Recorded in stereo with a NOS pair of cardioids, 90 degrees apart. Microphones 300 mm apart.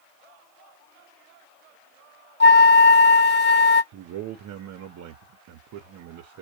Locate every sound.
2.4 s a flute: 35° left, 0.8 m
3.9 s a man speaking: 65° right, 0.7 m